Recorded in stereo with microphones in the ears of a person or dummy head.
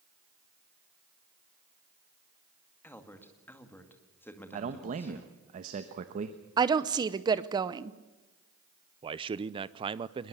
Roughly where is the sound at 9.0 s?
Right.